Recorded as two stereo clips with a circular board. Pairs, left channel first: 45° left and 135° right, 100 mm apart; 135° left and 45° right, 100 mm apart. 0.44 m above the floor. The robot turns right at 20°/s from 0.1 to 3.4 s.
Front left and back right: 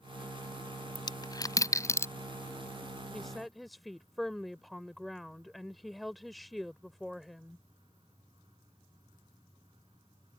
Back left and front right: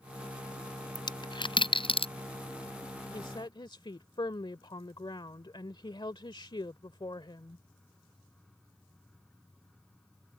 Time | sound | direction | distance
0.9 | a dropped coin | 90° left | ?
3.1 | a woman speaking | 130° left | ?